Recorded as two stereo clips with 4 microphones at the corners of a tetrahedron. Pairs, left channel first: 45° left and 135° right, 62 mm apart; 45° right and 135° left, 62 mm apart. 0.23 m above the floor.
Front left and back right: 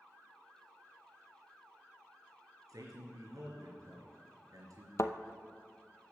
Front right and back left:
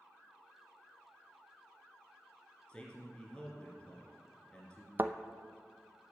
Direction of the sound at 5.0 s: 75° left.